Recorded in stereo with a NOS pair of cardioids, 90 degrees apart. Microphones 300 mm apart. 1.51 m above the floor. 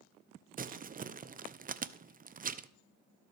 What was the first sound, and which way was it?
Crumpling, 30° right.